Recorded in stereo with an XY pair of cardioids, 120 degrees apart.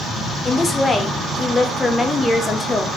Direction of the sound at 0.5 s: 20° left.